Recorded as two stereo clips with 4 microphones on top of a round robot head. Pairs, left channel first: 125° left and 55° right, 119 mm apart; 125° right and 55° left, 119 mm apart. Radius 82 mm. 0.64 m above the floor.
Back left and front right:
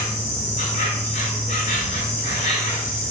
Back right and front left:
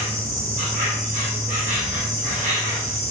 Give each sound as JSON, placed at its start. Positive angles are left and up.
{"t": 0.0, "sound": "an insect", "azimuth_deg": 80, "distance_m": 1.5}